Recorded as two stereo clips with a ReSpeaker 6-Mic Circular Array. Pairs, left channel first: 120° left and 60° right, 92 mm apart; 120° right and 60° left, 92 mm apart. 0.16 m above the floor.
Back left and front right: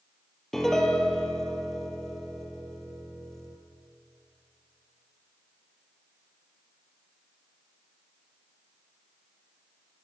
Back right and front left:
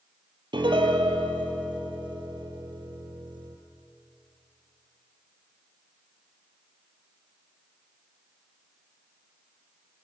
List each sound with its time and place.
0.5 s a piano: 35° left, 2.5 m